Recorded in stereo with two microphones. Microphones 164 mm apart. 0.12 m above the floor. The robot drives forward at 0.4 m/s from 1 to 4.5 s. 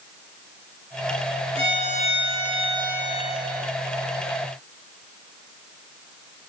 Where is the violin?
35° right (ahead or behind), 1.4 m; by 3.7 s 25° right (ahead or behind), 1.8 m.